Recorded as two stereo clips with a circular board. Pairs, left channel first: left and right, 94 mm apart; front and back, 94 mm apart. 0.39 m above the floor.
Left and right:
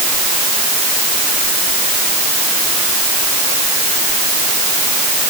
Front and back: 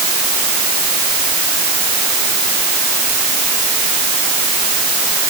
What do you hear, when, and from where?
Only background noise.